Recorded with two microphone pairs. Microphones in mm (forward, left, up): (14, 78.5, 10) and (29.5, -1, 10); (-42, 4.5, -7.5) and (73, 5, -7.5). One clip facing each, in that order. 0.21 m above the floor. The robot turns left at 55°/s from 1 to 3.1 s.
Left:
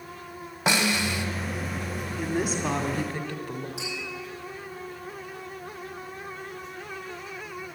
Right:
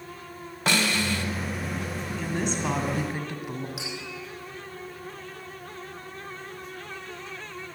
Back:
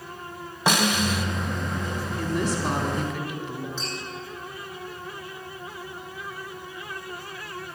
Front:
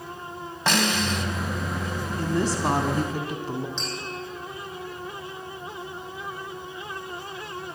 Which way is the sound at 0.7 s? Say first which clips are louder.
Even, back 1 dB; 125° left.